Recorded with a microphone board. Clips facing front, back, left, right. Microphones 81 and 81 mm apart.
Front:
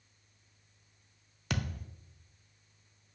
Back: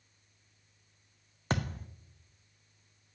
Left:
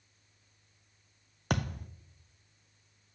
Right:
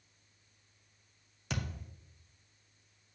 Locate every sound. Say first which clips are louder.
1.5 s a thud: back 3 dB, left 7 dB; 125° left, 0.8 m